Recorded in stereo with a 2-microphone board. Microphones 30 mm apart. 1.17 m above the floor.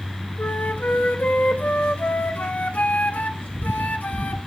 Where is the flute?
65° left (ahead or behind), 1.3 m.